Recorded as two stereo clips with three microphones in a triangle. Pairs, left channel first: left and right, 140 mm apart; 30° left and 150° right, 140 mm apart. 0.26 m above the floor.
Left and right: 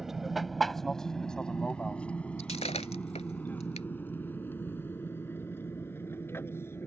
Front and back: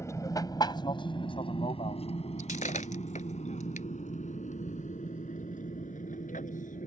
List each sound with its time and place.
0.0 s an aircraft: 5° right; by 6.9 s 20° left
2.4 s breaking glass: 55° left